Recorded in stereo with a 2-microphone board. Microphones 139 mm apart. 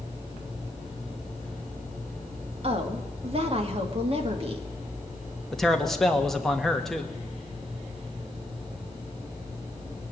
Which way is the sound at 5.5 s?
Centre (ahead or behind).